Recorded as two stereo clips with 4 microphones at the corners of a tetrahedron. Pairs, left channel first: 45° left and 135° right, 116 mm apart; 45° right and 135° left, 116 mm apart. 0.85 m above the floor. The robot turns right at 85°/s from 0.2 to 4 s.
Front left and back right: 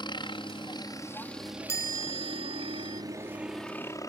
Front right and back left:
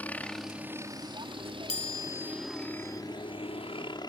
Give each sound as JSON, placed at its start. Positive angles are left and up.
{"t": 0.0, "sound": "a helicopter", "azimuth_deg": 25}
{"t": 1.7, "sound": "a chime", "azimuth_deg": -20}